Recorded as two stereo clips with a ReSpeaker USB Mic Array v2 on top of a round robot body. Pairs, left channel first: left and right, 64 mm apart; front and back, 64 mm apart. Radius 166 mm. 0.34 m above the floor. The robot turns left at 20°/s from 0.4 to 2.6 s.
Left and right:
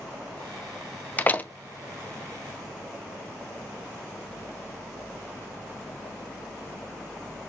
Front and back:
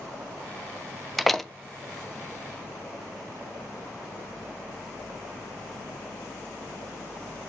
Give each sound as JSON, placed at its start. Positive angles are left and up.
{"t": 1.2, "sound": "a door slam", "azimuth_deg": 85, "distance_m": 0.8}